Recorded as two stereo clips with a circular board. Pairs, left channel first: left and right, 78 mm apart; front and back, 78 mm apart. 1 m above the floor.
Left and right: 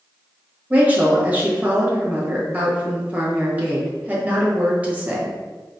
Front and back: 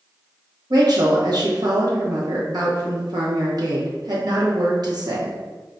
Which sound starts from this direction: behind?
A woman speaking, at 0.7 s.